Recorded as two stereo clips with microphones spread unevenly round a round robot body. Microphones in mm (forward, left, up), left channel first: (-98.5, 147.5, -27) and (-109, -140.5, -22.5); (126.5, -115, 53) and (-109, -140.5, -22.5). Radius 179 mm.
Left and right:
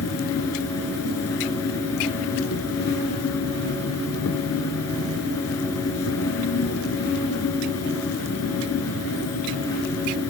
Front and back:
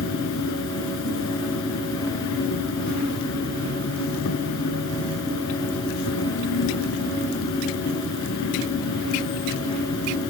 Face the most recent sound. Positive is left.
turn(degrees=35)